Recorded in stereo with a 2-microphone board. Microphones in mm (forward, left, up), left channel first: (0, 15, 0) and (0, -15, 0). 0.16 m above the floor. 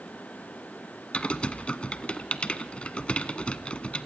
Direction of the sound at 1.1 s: 40° left (ahead or behind).